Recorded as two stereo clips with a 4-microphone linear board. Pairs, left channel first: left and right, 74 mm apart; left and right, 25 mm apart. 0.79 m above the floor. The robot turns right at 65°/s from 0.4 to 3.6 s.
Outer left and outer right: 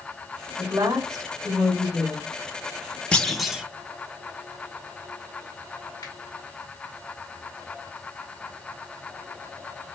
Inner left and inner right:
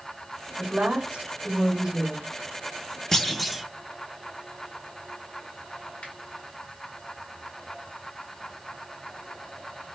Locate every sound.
0.6 s a woman speaking: 125° right, 3.5 m; by 2.3 s 10° right, 3.5 m
3.1 s a clunk: 165° left, 0.5 m; by 3.6 s 165° right, 0.5 m
6.0 s a finger snap: 80° left, 3.5 m